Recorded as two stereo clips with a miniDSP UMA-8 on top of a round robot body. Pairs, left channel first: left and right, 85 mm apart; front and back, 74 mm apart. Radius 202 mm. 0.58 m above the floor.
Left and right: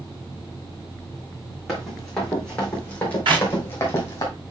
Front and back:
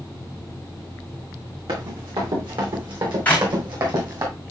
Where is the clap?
70° right, 5.5 m.